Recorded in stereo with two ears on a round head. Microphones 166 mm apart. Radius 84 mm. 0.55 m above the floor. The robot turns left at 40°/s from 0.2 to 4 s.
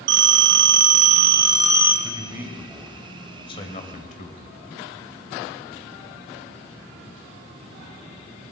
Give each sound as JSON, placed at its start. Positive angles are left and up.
{"t": 0.1, "sound": "a phone ringing", "azimuth_deg": -100, "distance_m": 2.0}
{"t": 2.0, "sound": "a man speaking", "azimuth_deg": -155, "distance_m": 2.5}